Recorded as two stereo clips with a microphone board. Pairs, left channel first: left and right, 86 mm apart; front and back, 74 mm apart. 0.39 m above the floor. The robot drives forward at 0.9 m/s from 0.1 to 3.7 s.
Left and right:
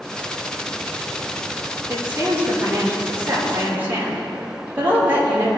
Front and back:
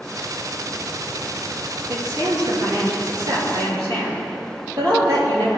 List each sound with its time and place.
1.9 s a woman speaking: 145° right, 5.5 m; by 5.6 s 155° right, 6.5 m